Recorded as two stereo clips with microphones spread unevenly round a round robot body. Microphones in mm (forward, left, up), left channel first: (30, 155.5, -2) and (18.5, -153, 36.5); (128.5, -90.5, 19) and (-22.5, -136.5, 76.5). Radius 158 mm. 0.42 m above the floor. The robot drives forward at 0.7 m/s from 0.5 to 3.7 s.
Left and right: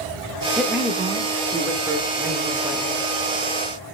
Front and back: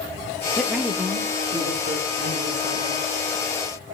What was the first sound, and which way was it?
A man speaking, 10° left.